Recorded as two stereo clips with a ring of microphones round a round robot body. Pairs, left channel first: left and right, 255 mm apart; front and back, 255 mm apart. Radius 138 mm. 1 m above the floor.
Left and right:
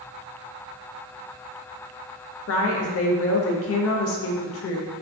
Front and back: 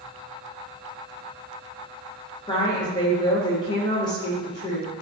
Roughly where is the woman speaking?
Left.